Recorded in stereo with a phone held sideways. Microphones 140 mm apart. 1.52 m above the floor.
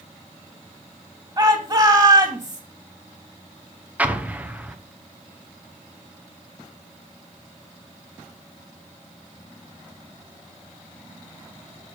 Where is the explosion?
10° right (ahead or behind), 0.9 m.